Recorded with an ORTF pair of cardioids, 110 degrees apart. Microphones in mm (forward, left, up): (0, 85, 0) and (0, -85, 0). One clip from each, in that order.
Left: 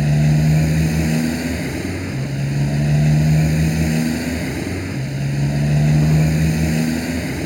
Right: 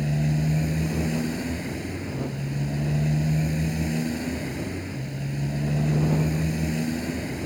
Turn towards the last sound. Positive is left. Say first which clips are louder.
# left 8 dB
turn(degrees=50)